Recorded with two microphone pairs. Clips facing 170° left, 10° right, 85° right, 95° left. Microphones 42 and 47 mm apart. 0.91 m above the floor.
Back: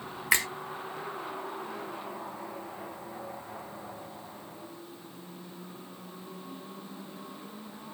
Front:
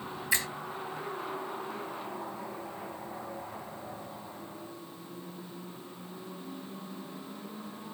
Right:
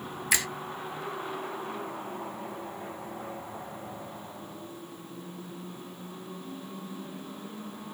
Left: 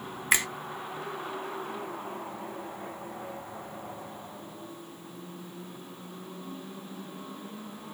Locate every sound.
0.3 s a finger snap: 155° left, 0.8 m